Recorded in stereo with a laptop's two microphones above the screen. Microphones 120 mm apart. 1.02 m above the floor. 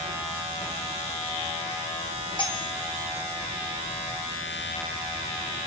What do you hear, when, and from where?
2.4 s cutlery clinking: 40° left (ahead or behind), 4 m